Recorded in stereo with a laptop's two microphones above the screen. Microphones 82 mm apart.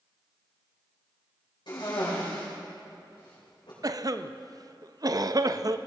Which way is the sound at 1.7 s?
70° left (ahead or behind).